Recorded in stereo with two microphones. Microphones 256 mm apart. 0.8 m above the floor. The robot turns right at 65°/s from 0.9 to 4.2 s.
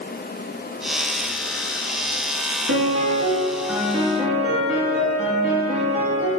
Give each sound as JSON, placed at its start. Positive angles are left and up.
{"t": 2.7, "sound": "a piano", "azimuth_deg": -75, "distance_m": 4.0}